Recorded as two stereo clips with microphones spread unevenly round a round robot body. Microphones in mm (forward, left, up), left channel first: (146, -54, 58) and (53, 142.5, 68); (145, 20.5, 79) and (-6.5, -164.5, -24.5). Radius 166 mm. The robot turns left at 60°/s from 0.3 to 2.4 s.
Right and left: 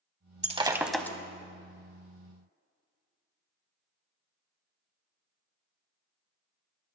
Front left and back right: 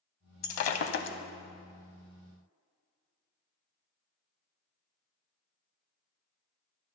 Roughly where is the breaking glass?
Ahead left.